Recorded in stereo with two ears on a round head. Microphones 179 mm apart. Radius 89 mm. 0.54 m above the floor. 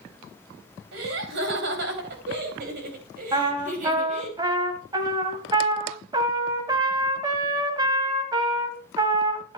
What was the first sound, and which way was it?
Laughter, 70° right (ahead or behind).